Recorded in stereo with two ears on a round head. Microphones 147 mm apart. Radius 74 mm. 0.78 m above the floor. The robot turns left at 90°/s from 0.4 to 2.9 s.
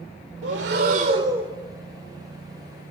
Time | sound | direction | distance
0.4 | breathing | 80° right | 2 m